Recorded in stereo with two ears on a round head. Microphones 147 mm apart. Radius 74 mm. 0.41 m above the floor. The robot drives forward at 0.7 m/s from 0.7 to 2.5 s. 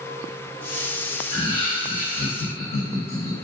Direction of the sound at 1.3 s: 30° left (ahead or behind).